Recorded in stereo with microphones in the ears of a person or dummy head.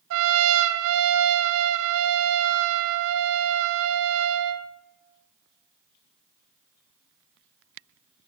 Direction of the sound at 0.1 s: 75° right (ahead or behind).